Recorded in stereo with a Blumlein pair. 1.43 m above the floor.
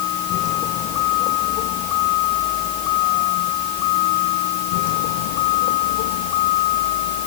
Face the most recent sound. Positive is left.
turn(degrees=50)